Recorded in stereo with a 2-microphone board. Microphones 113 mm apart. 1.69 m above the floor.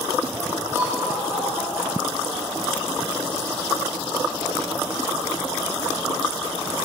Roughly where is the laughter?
Right.